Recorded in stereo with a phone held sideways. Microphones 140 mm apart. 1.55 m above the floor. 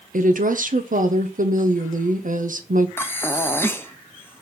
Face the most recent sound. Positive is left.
turn(degrees=15)  # may be behind; listen again after turning